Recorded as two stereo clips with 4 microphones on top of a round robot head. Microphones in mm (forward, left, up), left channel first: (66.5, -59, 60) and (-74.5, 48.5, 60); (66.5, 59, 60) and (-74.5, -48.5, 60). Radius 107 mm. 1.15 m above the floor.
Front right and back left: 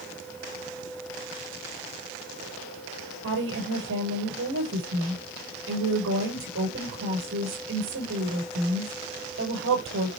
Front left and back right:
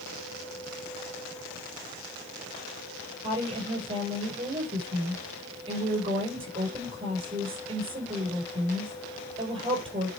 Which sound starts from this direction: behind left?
A woman speaking, at 3.2 s.